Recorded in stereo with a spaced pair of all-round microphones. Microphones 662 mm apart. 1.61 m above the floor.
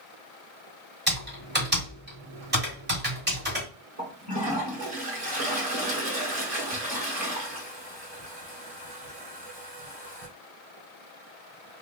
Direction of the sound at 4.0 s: 60° right (ahead or behind).